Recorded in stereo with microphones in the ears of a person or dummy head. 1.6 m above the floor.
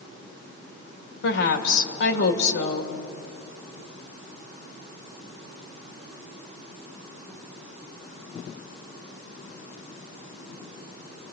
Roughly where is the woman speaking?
Left.